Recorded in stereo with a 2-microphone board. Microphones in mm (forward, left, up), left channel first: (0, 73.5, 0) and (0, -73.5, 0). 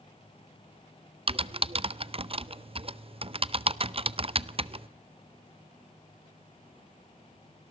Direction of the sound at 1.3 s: 40° right (ahead or behind).